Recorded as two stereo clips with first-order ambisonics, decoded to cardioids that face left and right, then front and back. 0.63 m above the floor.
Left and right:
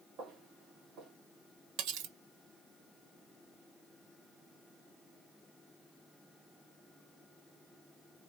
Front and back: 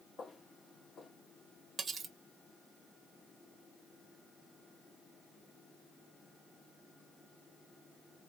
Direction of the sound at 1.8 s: 110° right.